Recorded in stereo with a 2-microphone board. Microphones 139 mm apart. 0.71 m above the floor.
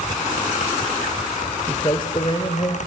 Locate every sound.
1.7 s a man speaking: 30° left (ahead or behind), 2 m; by 2.8 s 40° left (ahead or behind), 2.5 m